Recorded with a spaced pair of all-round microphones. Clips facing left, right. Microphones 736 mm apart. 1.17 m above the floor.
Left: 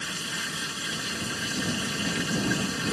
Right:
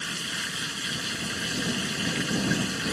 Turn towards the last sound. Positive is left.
turn(degrees=70)  # may be behind; listen again after turning